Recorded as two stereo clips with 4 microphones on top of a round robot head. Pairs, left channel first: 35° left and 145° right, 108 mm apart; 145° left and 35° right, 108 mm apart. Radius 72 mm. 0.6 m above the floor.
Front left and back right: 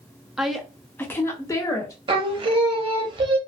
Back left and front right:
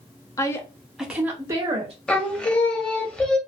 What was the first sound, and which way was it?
A woman speaking, 130° left.